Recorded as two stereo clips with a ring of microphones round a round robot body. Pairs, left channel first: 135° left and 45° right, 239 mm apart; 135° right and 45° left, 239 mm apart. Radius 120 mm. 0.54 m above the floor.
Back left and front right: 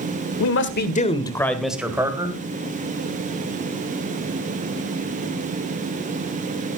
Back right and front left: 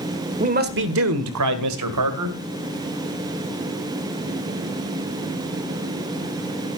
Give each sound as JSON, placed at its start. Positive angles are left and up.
{"t": 0.4, "sound": "a man speaking", "azimuth_deg": 105, "distance_m": 1.8}